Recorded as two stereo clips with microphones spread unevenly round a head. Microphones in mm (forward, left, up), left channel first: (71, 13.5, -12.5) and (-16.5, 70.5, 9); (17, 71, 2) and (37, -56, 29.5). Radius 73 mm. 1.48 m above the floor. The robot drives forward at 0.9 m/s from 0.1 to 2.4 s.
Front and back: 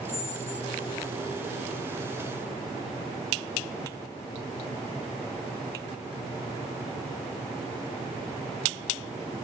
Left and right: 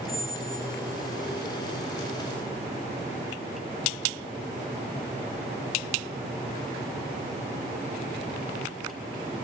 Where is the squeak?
5° left, 1.2 m; by 1.1 s 30° left, 0.6 m.